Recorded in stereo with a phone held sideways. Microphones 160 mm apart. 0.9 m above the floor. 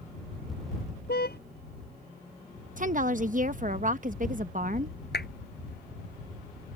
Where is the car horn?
70° left (ahead or behind).